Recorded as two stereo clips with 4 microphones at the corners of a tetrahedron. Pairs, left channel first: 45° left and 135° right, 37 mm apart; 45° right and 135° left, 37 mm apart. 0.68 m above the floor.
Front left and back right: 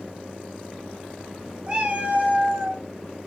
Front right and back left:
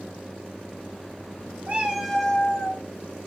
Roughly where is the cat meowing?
Behind.